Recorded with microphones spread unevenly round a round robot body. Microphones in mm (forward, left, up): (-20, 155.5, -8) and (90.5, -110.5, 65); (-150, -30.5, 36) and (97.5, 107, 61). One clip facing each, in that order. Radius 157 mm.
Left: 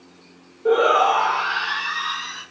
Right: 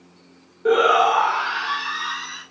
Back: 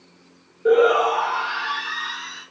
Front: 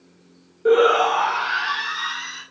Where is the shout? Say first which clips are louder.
Even, even; 55° right, 0.5 m; by 2.4 s 15° right, 2.5 m.